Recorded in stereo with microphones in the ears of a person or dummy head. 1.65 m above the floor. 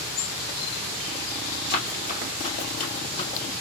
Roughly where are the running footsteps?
Left.